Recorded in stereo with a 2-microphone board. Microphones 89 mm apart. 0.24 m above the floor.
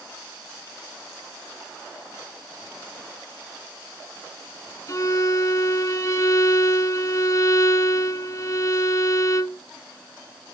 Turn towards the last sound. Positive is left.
turn(degrees=40)  # may be behind; listen again after turning